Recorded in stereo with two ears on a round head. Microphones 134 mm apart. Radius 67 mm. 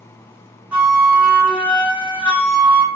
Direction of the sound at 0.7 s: 10° right (ahead or behind).